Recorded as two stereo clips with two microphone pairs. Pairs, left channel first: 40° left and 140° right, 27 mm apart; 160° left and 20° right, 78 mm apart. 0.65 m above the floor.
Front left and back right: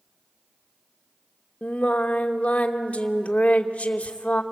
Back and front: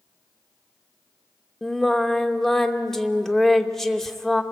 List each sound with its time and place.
1.6 s singing: 75° left, 0.9 m